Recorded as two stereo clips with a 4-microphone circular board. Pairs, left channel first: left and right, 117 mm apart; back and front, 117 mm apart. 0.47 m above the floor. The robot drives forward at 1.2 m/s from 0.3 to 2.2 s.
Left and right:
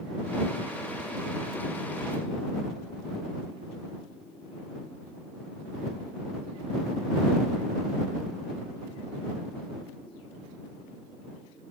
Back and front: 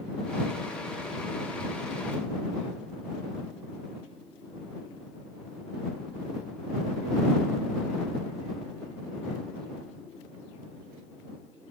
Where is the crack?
I don't hear a crack.